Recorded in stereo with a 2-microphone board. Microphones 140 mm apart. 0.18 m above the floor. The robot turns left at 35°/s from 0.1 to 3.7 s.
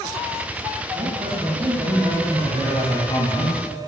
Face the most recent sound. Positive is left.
turn(degrees=140)